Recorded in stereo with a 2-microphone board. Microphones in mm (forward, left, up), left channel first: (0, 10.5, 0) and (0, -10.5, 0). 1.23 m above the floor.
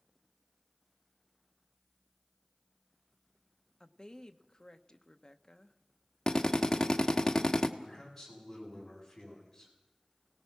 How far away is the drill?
About 1.3 m.